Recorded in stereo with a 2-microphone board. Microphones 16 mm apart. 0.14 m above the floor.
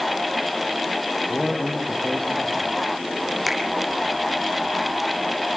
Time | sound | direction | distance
1.3 | a man speaking | 35° left (ahead or behind) | 4.5 m
3.5 | a finger snap | 5° right (ahead or behind) | 4.5 m